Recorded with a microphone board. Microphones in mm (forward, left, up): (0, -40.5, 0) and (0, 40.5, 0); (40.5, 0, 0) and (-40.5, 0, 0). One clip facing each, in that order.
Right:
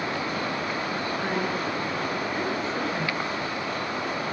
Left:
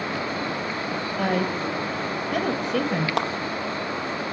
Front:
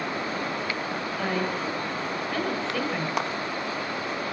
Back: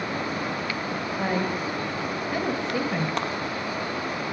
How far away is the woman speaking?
About 6 m.